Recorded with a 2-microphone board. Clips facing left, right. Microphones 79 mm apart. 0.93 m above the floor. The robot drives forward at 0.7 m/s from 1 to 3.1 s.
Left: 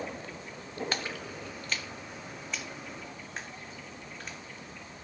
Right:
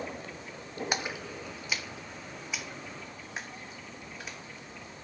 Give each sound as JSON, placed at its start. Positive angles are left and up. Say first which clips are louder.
{"t": 0.9, "sound": "a splash", "louder": "right 2 dB", "side_deg": -15, "distance_m": 0.6}